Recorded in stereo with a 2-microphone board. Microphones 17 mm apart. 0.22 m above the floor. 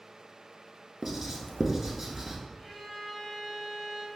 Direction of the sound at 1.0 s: 20° right (ahead or behind).